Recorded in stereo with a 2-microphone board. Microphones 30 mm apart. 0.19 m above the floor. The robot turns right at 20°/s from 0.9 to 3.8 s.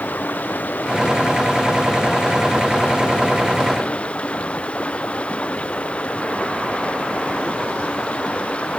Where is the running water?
75° left; by 8.8 s 135° left.